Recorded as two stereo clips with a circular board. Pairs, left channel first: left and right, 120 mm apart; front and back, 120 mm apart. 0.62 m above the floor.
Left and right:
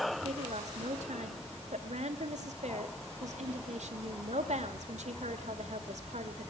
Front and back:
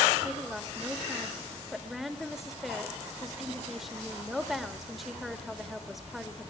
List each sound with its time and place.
0.2 s a woman speaking: 90° right, 1.8 m